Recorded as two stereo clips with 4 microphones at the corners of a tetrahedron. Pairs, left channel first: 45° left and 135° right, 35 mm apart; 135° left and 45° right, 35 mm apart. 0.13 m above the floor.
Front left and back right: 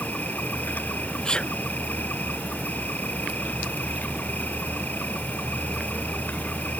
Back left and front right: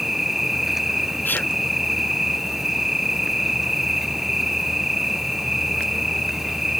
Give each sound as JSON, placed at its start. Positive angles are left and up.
{"t": 0.0, "sound": "an insect", "azimuth_deg": 35}
{"t": 1.2, "sound": "a sneeze", "azimuth_deg": 110}